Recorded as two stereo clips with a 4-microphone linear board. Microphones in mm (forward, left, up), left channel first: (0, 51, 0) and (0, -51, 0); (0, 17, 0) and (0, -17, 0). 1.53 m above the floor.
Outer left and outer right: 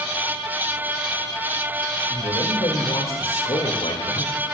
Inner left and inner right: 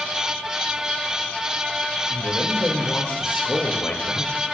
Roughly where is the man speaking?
Left.